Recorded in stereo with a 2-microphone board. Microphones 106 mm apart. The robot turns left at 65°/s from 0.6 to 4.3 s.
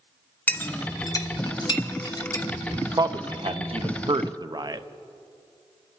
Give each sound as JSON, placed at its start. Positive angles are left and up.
{"t": 0.5, "sound": "a clink", "side_deg": 15, "distance_m": 0.8}
{"t": 2.8, "sound": "a man speaking", "side_deg": -25, "distance_m": 0.5}